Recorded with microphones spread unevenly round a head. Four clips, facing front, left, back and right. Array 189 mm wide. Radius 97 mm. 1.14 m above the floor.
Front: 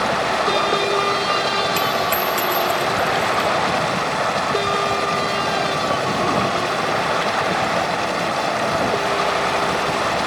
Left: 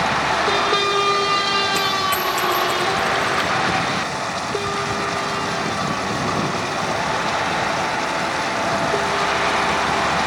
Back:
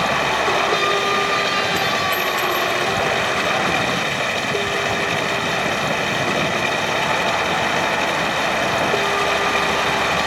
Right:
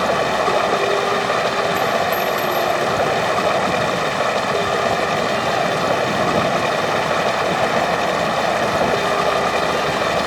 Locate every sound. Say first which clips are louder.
0.0 s running water: right 2 dB, even; 90° right
1.8 s a dropped coin: right 3 dB, front 1 dB; 30° left